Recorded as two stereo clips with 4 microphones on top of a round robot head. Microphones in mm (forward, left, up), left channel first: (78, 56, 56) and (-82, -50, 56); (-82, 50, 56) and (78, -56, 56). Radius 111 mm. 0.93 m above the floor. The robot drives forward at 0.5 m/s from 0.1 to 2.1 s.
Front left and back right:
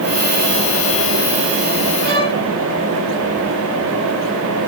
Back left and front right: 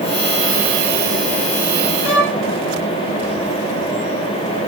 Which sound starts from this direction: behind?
A violin, at 2.0 s.